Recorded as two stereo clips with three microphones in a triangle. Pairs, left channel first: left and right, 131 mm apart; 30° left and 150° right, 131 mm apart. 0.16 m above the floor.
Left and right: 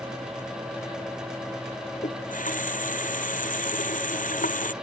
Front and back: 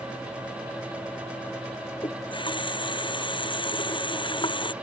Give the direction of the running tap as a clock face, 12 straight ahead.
9 o'clock.